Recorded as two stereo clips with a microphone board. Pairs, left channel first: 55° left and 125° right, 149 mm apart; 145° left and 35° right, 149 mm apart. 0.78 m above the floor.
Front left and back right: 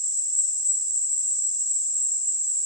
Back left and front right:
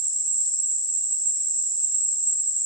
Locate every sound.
0.0 s an insect: 90° left, 4 m